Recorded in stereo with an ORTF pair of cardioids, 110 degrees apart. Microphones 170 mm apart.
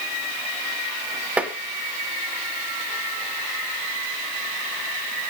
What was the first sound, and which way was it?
Tapping, 10° right.